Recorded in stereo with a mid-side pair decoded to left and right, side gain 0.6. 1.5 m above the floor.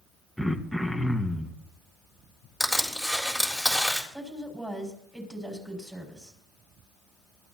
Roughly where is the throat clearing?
Ahead.